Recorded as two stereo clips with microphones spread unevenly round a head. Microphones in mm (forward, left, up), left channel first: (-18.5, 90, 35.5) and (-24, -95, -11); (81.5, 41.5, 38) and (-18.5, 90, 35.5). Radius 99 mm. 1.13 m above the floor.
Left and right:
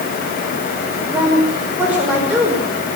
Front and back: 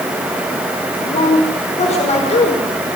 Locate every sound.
1.1 s a woman speaking: 10° right, 5 m